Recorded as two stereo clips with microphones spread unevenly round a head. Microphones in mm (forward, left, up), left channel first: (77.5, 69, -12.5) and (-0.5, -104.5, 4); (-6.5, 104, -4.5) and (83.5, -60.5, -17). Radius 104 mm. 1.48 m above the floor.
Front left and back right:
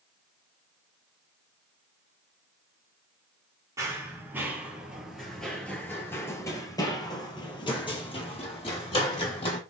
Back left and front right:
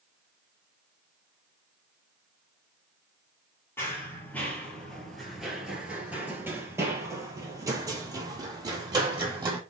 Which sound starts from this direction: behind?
Running footsteps, at 3.8 s.